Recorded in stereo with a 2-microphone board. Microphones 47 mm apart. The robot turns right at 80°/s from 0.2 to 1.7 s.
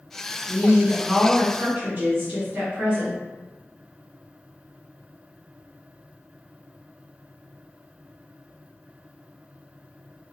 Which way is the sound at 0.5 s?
145° left.